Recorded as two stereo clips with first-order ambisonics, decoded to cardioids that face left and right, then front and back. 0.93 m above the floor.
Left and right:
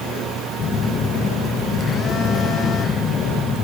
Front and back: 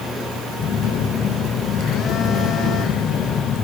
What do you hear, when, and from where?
0.6 s a phone buzzing: 40° left, 0.6 m